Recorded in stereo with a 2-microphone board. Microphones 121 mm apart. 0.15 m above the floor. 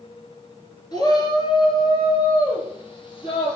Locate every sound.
0.9 s a shout: 35° left (ahead or behind), 2.5 m; by 3.6 s 45° left (ahead or behind), 4.5 m